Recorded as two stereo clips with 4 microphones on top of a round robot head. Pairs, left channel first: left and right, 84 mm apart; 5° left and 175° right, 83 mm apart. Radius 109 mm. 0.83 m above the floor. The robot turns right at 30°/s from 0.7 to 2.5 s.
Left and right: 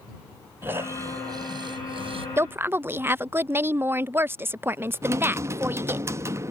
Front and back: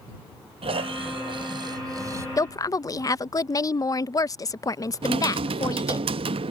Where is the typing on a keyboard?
150° right.